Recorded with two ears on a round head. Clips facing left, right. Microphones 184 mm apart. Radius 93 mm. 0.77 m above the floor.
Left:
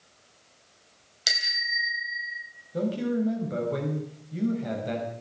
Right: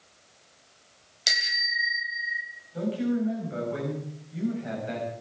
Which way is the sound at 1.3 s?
5° left (ahead or behind).